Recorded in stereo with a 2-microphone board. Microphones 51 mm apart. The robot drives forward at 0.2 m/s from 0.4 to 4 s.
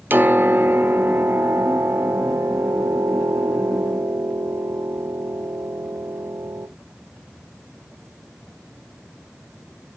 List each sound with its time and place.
0.1 s a piano: 40° right (ahead or behind), 0.8 m; by 6.7 s 65° right (ahead or behind), 0.6 m